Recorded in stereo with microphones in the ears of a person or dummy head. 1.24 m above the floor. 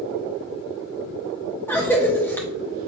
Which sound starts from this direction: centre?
A cough, at 1.7 s.